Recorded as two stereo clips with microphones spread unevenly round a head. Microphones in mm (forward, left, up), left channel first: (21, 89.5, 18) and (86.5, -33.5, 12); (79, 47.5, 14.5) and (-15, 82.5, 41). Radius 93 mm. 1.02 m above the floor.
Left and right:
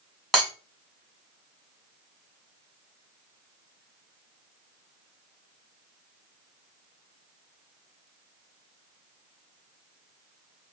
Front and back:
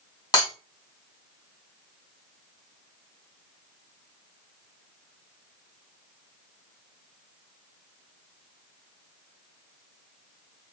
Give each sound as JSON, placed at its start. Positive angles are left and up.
{"t": 0.3, "sound": "breaking glass", "azimuth_deg": 30, "distance_m": 2.5}